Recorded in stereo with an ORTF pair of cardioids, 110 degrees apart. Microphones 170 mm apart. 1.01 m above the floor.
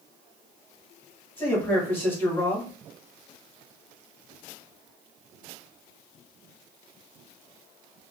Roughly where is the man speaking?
Ahead.